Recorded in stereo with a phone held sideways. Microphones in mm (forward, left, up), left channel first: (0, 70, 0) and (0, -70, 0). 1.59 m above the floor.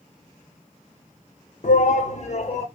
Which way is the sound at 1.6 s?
65° left (ahead or behind).